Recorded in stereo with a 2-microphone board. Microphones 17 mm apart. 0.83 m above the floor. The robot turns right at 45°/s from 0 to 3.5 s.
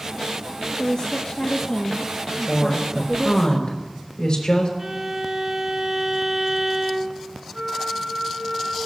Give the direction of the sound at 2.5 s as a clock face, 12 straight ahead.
12 o'clock.